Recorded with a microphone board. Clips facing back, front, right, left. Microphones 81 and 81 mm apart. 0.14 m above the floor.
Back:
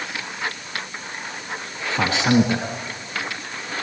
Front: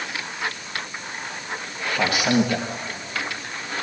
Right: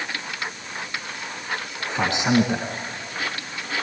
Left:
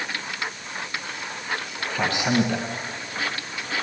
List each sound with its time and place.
1.9 s a man speaking: 140° right, 1.7 m